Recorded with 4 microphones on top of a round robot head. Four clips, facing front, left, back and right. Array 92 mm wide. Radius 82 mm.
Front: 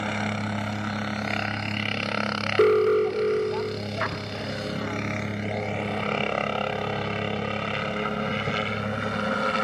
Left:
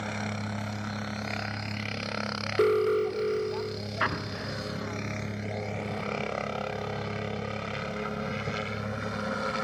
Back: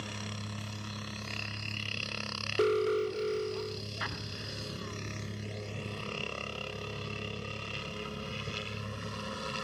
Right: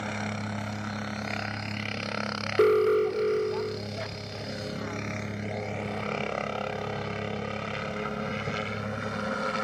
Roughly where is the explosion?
Ahead left.